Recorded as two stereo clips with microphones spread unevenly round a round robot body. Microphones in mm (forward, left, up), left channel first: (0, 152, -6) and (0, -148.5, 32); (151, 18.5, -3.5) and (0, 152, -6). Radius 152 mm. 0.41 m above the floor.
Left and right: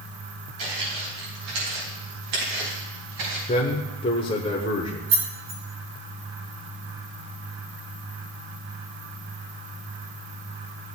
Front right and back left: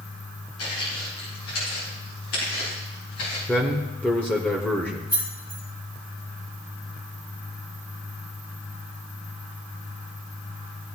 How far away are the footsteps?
About 6 m.